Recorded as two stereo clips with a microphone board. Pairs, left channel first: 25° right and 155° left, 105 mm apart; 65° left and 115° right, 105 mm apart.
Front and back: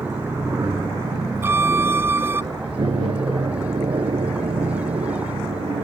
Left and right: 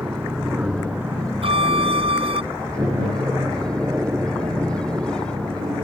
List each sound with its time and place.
0.0 s an aircraft: 175° right; by 5.8 s straight behind
1.4 s a violin: 135° right